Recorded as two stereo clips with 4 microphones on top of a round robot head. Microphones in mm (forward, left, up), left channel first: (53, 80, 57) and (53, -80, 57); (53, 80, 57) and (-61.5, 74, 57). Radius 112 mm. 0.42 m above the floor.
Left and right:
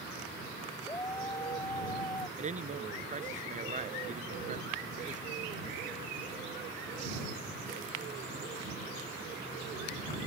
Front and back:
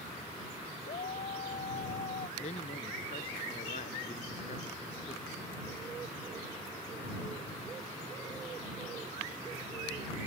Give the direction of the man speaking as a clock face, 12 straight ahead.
1 o'clock.